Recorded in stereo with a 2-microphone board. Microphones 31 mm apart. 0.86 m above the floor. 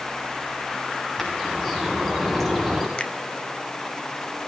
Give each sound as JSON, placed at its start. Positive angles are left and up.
{"t": 1.2, "sound": "a bird", "side_deg": 10, "distance_m": 8.0}
{"t": 3.0, "sound": "a finger snap", "side_deg": 35, "distance_m": 1.6}